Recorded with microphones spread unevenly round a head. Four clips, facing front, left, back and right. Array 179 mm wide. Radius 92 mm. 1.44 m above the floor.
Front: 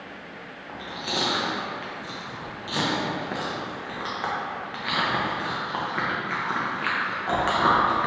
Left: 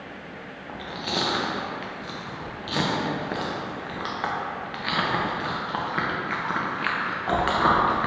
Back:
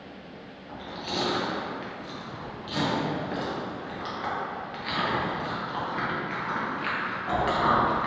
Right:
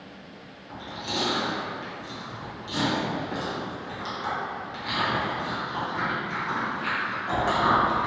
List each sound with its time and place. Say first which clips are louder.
0.7 s chewing: left 2 dB, front 2 dB; 55° left, 0.8 m